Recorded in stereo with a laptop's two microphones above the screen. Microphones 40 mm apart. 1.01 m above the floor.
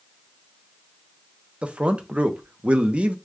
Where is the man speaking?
30° right (ahead or behind), 0.7 m.